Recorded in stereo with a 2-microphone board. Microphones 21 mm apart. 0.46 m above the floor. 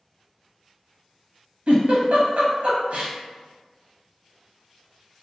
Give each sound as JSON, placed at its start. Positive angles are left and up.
{"t": 1.7, "sound": "a giggle", "side_deg": -75, "distance_m": 0.6}